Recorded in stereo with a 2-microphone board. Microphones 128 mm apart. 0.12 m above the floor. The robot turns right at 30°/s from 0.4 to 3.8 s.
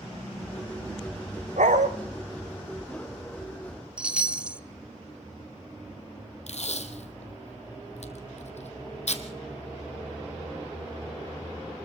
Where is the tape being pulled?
65° left (ahead or behind), 1.9 m.